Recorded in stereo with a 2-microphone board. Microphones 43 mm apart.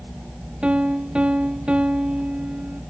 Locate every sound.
0.6 s a piano: 25° right (ahead or behind), 0.9 m